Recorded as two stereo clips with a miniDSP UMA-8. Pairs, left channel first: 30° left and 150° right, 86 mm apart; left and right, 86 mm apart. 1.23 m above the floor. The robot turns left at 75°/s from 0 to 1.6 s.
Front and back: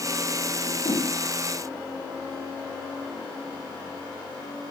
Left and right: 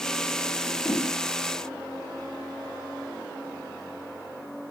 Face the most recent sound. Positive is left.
turn(degrees=5)